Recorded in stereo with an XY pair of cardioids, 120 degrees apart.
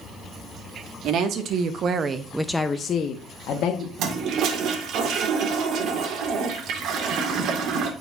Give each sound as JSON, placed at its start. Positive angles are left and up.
{"t": 1.0, "sound": "a woman speaking", "azimuth_deg": -65, "distance_m": 2.0}
{"t": 4.0, "sound": "a toilet flushing", "azimuth_deg": -65, "distance_m": 2.5}